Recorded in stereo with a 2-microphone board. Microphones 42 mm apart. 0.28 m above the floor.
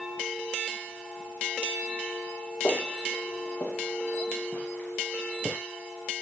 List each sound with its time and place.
2.6 s footsteps: 75° left (ahead or behind), 2 m; by 5.6 s 50° left (ahead or behind), 3.5 m